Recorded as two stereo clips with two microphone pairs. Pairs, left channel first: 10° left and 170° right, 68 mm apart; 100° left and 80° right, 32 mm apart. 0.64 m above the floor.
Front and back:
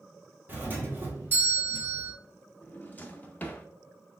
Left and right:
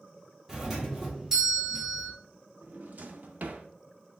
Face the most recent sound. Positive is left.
turn(degrees=-55)